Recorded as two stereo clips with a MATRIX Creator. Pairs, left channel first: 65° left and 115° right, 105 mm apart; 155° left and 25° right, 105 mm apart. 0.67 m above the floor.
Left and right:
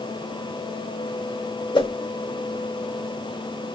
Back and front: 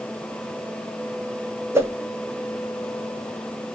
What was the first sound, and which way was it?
A whoosh, 40° left.